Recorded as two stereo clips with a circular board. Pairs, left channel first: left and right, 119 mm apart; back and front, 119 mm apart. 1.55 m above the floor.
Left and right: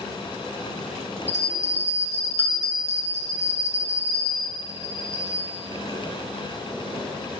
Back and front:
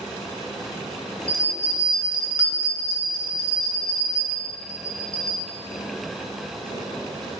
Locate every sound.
1.3 s a bell: 65° right, 2 m